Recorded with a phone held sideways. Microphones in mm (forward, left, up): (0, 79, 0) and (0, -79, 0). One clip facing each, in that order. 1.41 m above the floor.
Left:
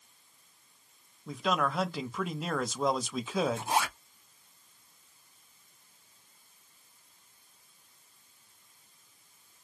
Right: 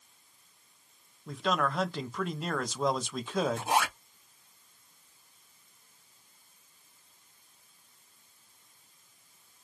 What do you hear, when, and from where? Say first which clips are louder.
1.3 s a man speaking: even; 5° left (ahead or behind), 0.5 m
3.6 s a zipper: right 2 dB; 60° right (ahead or behind), 0.8 m